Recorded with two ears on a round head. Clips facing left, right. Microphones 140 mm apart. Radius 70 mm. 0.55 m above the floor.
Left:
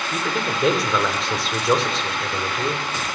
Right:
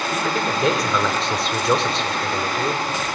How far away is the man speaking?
About 2 m.